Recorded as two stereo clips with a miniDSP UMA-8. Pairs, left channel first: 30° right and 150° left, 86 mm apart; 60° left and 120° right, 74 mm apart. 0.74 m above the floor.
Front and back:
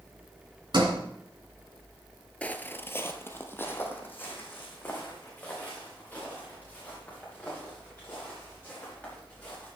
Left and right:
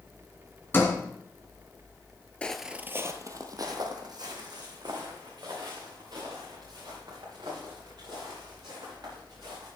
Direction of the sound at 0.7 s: 120° left.